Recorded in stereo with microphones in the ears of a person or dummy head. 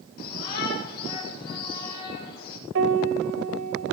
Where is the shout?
55° left (ahead or behind), 8 m.